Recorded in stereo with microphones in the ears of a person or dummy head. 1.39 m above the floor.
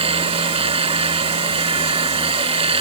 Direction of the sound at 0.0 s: 30° right (ahead or behind).